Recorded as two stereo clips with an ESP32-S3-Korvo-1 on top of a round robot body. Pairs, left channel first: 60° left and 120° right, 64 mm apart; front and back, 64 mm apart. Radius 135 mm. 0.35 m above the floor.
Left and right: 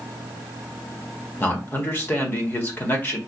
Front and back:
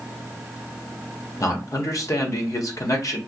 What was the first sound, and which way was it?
A man speaking, 10° left.